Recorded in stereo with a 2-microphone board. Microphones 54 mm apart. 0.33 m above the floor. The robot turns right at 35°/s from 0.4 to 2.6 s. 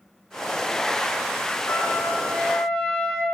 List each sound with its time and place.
1.7 s a trumpet: 140° left, 2.5 m; by 3.2 s 175° left, 2.5 m